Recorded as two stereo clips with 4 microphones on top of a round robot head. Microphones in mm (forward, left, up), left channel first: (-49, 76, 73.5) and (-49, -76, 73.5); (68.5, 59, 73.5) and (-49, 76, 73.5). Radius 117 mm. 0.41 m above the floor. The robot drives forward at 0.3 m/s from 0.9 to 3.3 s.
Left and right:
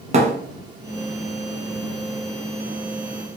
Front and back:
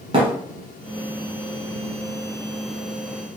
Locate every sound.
0.1 s a thud: 135° right, 1.6 m